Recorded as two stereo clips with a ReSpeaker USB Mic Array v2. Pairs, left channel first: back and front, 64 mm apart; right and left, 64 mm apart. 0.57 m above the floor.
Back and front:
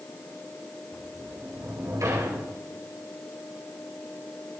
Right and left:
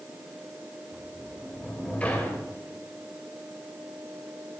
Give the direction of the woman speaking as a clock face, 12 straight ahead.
I don't hear a woman speaking.